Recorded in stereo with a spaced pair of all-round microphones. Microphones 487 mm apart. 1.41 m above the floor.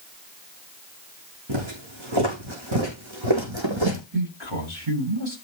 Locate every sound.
1.5 s footsteps: 70° right (ahead or behind), 5 m; by 4.0 s 65° right (ahead or behind), 3 m
4.1 s a man speaking: 75° right (ahead or behind), 8 m